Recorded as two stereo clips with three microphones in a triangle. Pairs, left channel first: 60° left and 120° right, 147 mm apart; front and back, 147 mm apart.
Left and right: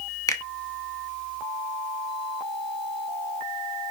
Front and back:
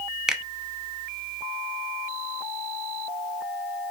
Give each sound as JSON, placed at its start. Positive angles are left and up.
{"t": 0.3, "sound": "a finger snap", "azimuth_deg": 95, "distance_m": 0.8}